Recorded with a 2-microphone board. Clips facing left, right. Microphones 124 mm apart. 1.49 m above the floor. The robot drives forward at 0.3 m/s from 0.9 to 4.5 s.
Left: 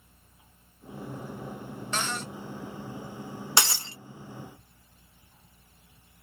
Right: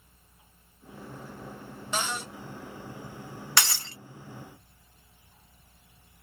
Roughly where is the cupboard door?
Centre.